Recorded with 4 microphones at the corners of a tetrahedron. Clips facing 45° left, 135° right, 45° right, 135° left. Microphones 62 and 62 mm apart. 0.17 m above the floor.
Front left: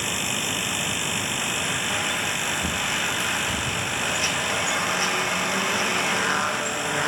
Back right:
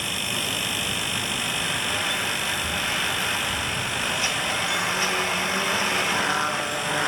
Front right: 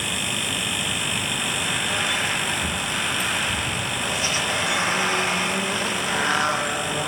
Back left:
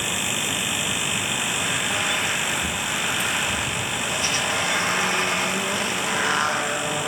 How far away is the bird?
About 2.5 m.